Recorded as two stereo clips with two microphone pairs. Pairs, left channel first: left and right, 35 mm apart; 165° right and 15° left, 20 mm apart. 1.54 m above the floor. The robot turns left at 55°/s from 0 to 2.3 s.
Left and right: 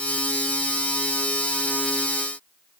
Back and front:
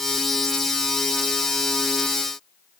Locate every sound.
Only background noise.